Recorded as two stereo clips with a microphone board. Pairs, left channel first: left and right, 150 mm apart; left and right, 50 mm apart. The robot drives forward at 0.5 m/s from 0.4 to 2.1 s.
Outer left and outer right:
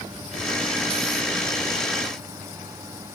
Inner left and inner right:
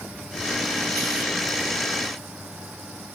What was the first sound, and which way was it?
Only background noise.